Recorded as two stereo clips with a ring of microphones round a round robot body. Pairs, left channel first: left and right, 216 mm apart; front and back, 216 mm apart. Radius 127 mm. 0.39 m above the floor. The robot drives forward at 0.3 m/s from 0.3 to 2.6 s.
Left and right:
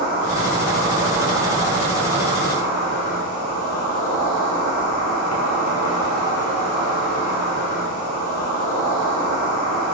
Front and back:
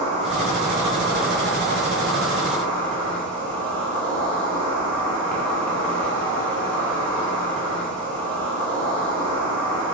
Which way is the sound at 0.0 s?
60° left.